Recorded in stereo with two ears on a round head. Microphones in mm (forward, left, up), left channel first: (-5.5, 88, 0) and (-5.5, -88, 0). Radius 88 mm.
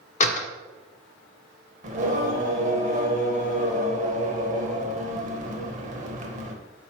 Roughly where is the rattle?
I don't hear a rattle.